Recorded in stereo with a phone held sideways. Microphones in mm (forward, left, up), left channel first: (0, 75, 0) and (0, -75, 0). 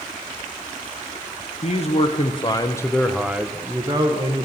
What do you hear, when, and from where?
1.6 s a man speaking: 50° left (ahead or behind), 1.2 m; by 4.5 s 35° right (ahead or behind), 1.1 m